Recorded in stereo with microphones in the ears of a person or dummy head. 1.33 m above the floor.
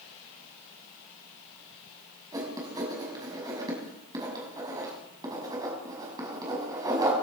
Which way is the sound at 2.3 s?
20° right (ahead or behind).